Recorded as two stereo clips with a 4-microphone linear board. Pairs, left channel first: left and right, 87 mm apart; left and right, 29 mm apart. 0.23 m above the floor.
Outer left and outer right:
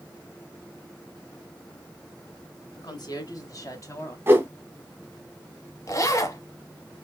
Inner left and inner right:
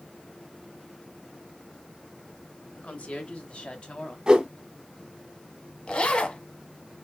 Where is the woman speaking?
50° left (ahead or behind), 1.7 m; by 4.2 s 35° left (ahead or behind), 1.2 m.